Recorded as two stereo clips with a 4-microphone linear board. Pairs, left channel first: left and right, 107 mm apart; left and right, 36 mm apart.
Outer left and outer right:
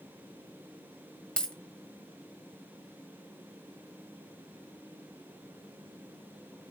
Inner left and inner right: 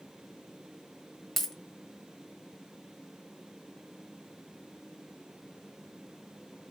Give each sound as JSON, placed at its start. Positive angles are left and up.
{"t": 1.4, "sound": "a dropped coin", "side_deg": 10, "distance_m": 1.3}